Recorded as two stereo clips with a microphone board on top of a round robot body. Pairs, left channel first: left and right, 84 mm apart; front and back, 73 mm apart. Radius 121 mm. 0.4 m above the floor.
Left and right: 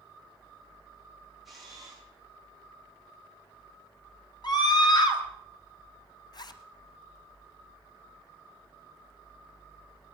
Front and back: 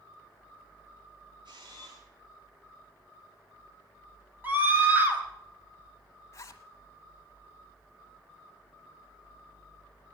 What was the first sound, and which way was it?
A camera shutter, straight behind.